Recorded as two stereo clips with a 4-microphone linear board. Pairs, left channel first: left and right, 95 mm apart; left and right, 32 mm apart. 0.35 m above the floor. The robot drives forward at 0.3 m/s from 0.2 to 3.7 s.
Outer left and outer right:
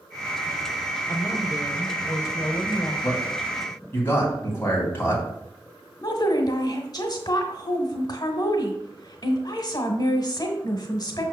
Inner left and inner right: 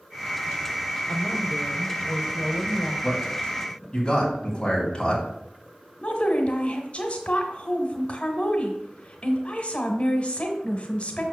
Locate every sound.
1.1 s a woman speaking: 30° left (ahead or behind), 0.9 m; by 2.9 s 25° left (ahead or behind), 1.1 m
3.0 s a man speaking: 25° left (ahead or behind), 2.5 m; by 5.2 s 20° left (ahead or behind), 3 m
6.0 s a woman speaking: 45° left (ahead or behind), 1.1 m